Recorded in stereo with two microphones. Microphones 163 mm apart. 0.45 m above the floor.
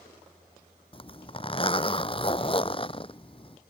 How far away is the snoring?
No snoring in this recording.